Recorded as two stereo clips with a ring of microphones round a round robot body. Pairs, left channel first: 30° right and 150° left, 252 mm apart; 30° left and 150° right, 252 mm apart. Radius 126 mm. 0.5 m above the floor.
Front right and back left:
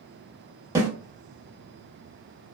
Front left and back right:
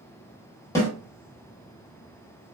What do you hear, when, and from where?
0.8 s a snare drum: 90° left, 1.1 m